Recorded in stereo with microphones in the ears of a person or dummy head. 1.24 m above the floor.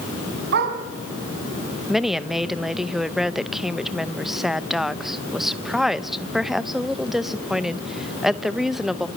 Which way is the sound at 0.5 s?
60° right (ahead or behind).